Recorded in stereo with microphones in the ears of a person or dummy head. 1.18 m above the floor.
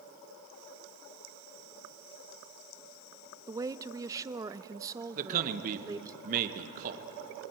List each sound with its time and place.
3.5 s a woman speaking: 15° right (ahead or behind), 0.7 m
5.2 s a man speaking: 50° right (ahead or behind), 1.1 m